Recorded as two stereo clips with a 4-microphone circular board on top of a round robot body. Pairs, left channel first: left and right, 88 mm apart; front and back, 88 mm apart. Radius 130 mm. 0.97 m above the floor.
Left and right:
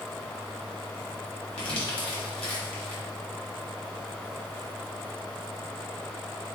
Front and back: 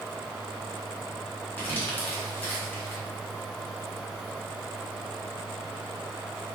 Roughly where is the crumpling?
Left.